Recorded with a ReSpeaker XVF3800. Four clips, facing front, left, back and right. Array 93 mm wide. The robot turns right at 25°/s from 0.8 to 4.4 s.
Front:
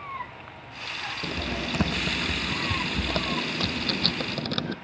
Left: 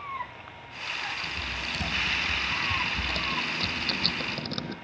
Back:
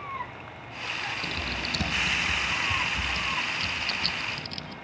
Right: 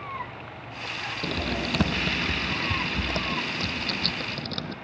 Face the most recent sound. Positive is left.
turn(degrees=10)